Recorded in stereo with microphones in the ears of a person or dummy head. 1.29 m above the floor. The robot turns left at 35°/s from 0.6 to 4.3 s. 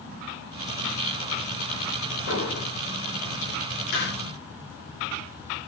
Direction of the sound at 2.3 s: 75° left (ahead or behind).